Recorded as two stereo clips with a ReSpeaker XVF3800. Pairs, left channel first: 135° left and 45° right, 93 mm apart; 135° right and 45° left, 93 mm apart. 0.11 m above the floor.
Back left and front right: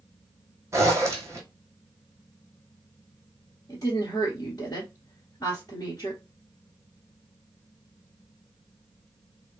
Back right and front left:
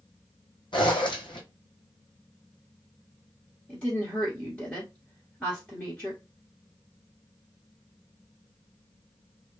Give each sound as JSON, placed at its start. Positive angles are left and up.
{"t": 0.7, "sound": "a zipper", "azimuth_deg": -105, "distance_m": 1.0}
{"t": 3.7, "sound": "a woman speaking", "azimuth_deg": 155, "distance_m": 1.3}